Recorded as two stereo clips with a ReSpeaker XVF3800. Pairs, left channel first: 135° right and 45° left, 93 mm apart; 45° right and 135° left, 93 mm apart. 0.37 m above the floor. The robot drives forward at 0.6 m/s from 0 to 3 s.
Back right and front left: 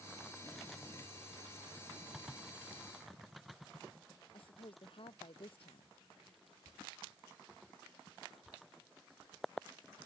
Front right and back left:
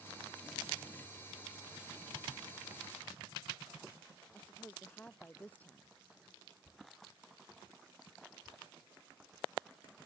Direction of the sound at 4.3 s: 120° right.